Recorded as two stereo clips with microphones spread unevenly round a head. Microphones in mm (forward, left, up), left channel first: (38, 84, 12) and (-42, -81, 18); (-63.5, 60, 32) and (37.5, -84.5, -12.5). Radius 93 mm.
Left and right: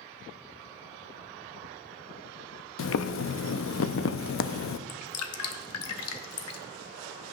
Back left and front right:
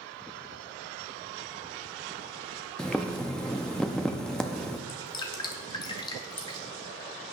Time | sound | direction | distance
2.8 | boiling | 40° left | 0.5 m
4.9 | dripping | 60° left | 0.8 m